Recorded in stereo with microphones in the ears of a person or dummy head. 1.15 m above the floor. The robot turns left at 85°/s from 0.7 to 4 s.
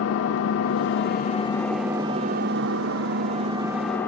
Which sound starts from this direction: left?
An engine running, at 0.0 s.